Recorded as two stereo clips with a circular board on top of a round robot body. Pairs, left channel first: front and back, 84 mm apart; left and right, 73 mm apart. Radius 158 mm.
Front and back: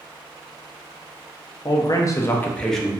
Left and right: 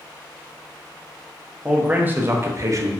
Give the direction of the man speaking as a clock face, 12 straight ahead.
1 o'clock.